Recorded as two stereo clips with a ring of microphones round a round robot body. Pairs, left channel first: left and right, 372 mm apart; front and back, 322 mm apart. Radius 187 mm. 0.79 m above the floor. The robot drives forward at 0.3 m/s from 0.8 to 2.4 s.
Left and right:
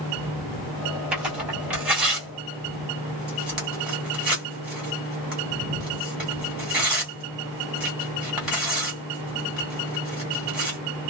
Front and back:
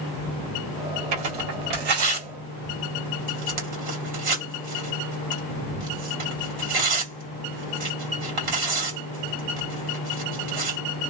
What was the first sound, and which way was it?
Tearing paper, 175° right.